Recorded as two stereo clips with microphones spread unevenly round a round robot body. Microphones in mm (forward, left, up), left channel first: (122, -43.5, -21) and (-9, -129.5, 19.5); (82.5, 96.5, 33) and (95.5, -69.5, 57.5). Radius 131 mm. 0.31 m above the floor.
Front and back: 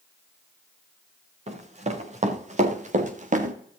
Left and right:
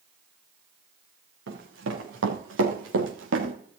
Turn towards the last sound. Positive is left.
turn(degrees=-110)